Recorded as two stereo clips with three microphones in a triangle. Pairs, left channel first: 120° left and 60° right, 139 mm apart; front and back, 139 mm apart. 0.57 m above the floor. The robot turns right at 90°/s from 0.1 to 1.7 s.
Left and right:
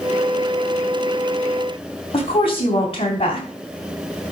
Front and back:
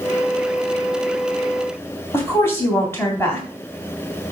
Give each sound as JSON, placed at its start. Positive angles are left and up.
{"t": 2.1, "sound": "a woman speaking", "azimuth_deg": 70, "distance_m": 3.5}